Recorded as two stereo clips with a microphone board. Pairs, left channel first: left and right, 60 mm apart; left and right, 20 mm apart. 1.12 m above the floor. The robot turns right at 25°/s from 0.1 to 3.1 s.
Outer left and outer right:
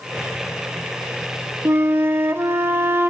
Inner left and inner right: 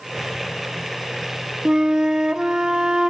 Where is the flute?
105° right, 0.9 m; by 3.1 s 65° right, 0.9 m.